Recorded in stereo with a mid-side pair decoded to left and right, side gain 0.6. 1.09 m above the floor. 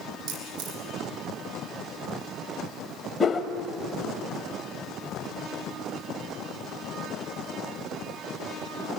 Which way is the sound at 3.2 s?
20° left.